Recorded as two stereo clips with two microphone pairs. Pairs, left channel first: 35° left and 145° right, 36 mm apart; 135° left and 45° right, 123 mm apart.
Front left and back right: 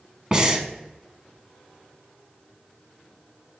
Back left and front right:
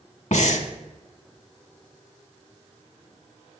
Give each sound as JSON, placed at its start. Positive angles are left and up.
{"t": 0.3, "sound": "breathing", "azimuth_deg": 150, "distance_m": 0.8}